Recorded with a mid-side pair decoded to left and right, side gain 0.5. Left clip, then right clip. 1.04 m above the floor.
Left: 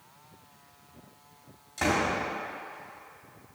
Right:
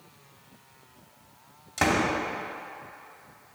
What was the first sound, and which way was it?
A door slam, 50° right.